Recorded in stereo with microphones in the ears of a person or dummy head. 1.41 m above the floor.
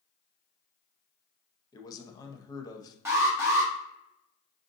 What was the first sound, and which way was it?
A man speaking, 20° left (ahead or behind).